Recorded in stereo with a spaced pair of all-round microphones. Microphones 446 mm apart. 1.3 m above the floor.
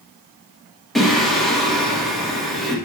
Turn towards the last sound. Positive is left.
turn(degrees=0)  # may be behind; listen again after turning